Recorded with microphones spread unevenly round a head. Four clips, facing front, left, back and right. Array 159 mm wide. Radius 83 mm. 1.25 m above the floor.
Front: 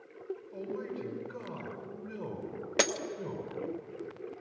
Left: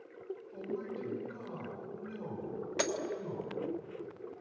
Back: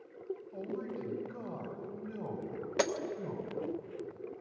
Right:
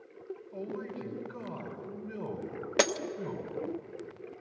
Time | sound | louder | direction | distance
0.5 | a man speaking | right 1 dB, front 2 dB | 45° right | 5 m
2.8 | breaking glass | right 7 dB, front 1 dB | 60° right | 0.9 m